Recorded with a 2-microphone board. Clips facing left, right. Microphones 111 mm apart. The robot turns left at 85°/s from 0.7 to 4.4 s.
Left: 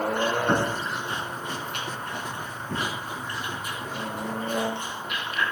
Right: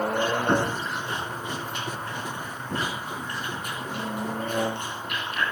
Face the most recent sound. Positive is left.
turn(degrees=-60)  # may be behind; listen again after turning